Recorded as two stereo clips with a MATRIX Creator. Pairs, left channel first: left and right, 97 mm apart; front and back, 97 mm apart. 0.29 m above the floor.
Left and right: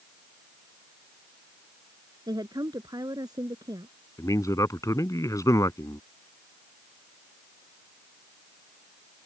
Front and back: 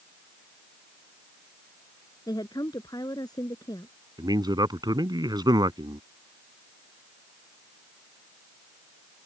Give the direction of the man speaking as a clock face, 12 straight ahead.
7 o'clock.